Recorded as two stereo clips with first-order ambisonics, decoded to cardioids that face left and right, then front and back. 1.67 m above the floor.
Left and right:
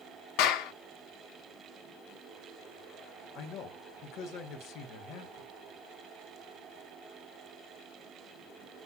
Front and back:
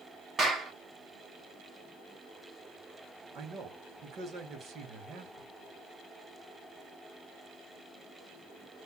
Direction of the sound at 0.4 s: 110° left.